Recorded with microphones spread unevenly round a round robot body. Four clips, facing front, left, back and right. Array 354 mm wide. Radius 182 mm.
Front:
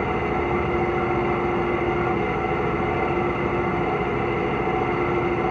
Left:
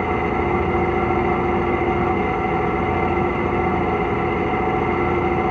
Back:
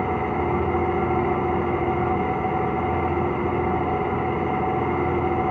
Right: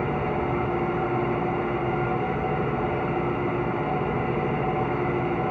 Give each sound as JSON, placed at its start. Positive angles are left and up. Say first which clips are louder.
{"t": 0.0, "sound": "an engine running", "louder": "left 5 dB, even", "azimuth_deg": 95, "distance_m": 3.5}